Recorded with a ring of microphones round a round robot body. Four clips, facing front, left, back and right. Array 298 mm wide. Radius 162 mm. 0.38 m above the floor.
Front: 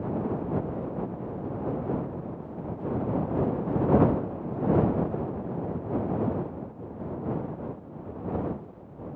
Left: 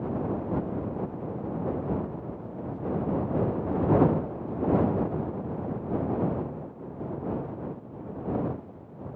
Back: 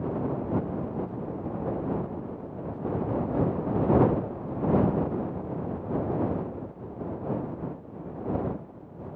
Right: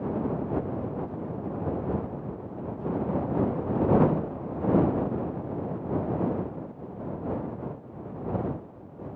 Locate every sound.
Only background noise.